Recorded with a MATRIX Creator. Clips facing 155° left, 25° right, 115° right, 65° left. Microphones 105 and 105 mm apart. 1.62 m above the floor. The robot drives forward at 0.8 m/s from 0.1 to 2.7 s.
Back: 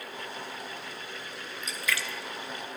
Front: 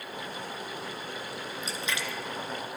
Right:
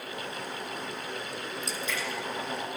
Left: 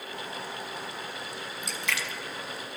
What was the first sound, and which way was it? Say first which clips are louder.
A splash: back 2 dB, left 1 dB; 35° left.